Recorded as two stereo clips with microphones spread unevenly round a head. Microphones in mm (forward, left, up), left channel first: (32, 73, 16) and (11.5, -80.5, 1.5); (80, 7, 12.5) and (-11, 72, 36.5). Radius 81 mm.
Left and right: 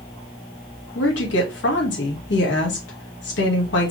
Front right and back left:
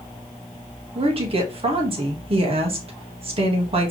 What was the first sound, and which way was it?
A woman speaking, 110° left.